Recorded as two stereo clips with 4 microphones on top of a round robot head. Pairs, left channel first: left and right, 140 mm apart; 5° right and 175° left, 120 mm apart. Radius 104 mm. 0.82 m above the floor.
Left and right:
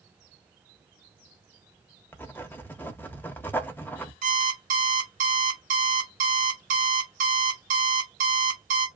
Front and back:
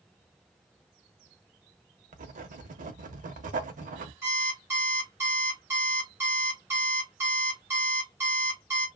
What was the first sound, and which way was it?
Writing, 165° left.